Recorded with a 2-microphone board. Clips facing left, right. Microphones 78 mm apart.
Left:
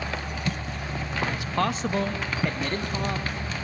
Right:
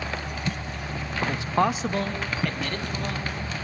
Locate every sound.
1.3 s a man speaking: 40° right (ahead or behind), 0.9 m; by 3.4 s 35° left (ahead or behind), 2.5 m